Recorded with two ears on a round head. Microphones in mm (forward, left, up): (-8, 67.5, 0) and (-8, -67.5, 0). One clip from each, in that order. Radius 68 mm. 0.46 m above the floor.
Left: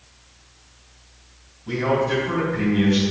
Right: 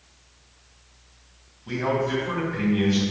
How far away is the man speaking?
About 3.5 m.